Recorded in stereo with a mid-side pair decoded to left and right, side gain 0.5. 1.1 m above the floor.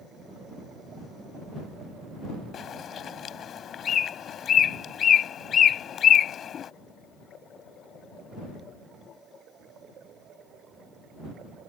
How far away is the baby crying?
I don't hear a baby crying.